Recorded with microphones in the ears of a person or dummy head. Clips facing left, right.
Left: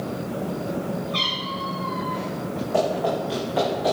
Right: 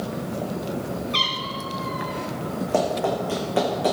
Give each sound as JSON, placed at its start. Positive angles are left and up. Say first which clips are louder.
{"t": 1.1, "sound": "a cat meowing", "louder": "left 1 dB", "side_deg": -40, "distance_m": 1.8}
{"t": 2.7, "sound": "running footsteps", "louder": "even", "side_deg": -40, "distance_m": 4.0}